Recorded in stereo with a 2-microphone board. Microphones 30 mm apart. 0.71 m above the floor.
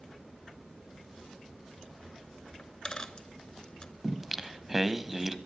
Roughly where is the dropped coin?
Left.